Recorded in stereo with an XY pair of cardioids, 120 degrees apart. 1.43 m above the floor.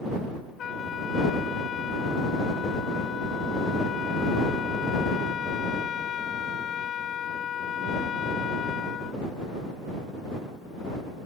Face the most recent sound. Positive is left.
turn(degrees=50)